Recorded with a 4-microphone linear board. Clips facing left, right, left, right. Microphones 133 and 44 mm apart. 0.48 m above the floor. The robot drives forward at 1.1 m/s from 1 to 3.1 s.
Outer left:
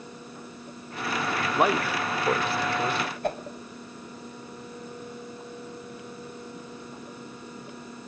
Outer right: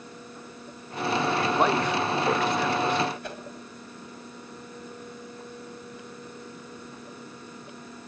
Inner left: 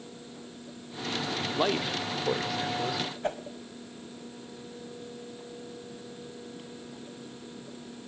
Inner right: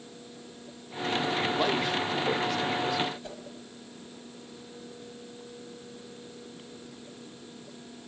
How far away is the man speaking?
About 1.1 m.